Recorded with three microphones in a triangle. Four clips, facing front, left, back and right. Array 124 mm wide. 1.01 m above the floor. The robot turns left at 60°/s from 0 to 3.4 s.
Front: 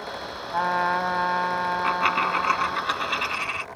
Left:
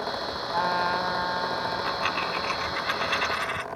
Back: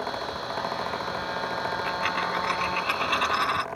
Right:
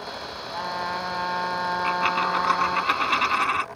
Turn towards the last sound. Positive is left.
turn(degrees=-110)